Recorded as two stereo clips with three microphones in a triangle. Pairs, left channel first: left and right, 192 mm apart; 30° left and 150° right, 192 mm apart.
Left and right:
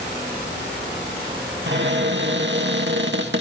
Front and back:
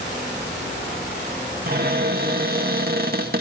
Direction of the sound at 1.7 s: 110° right.